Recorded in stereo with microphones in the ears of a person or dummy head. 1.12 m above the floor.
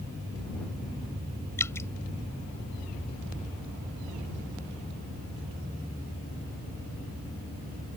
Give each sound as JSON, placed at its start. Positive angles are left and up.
{"t": 1.6, "sound": "dripping", "side_deg": 15}